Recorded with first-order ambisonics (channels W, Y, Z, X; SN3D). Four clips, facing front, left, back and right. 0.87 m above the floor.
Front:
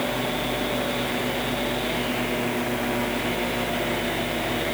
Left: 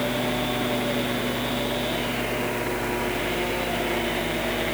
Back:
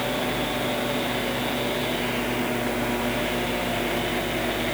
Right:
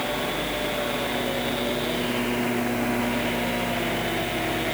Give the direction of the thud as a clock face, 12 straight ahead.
No thud in this recording.